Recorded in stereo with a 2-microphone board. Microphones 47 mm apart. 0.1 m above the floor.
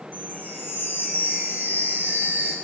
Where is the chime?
50° right (ahead or behind), 3 m.